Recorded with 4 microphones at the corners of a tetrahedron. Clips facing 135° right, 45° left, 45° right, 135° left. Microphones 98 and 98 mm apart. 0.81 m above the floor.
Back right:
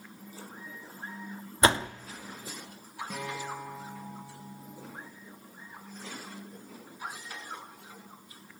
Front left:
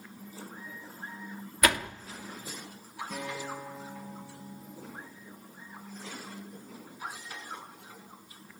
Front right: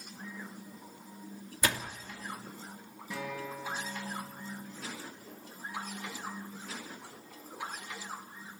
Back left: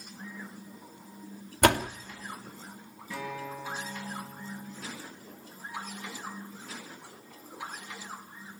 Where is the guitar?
120° right, 8.5 m.